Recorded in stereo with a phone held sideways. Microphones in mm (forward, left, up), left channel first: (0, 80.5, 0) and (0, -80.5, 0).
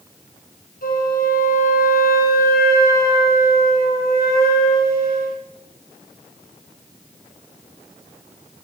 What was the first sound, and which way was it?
A flute, 70° left (ahead or behind).